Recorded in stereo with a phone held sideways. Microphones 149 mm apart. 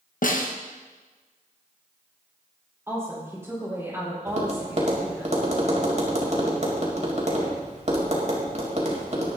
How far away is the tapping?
About 3.5 m.